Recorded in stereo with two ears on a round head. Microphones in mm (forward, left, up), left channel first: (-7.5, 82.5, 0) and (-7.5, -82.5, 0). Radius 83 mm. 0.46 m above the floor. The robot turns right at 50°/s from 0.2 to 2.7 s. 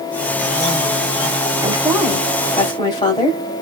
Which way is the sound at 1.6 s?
25° right.